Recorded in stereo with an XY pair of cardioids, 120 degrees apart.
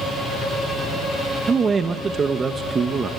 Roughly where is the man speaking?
Ahead right.